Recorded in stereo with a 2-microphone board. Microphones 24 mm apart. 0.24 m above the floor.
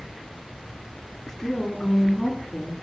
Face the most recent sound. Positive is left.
turn(degrees=0)  # may be behind; listen again after turning